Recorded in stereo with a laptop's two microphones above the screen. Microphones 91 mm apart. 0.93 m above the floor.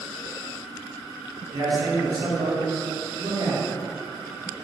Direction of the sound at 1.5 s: 45° right (ahead or behind).